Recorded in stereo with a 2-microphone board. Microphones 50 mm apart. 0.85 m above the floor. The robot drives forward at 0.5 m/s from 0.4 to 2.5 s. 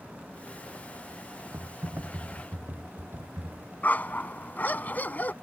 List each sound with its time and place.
1.5 s typing on a keyboard: 45° right (ahead or behind); by 3.7 s 50° right (ahead or behind)
3.8 s a dog barking: 35° left (ahead or behind)